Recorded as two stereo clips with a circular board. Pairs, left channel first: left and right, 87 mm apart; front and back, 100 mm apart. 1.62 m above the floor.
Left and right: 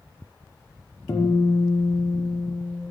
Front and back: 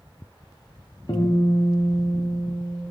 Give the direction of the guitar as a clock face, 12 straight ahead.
11 o'clock.